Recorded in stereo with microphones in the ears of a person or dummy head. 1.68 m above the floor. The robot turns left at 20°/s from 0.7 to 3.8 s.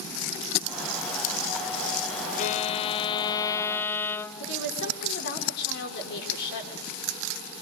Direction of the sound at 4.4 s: 55° left (ahead or behind).